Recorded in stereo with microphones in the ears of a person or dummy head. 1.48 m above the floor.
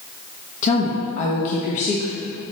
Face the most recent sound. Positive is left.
turn(degrees=40)  # may be behind; listen again after turning